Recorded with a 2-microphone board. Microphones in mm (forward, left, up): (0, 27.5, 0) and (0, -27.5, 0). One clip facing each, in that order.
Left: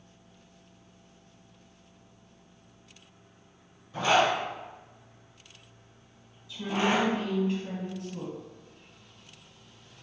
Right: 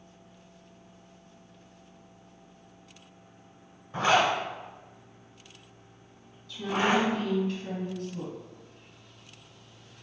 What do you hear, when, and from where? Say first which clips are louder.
3.9 s a zipper: even; 40° right (ahead or behind), 1.3 m
6.5 s a woman speaking: right 1 dB; 25° left (ahead or behind), 1.8 m